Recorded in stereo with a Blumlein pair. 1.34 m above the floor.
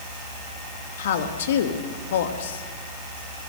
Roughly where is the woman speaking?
Ahead left.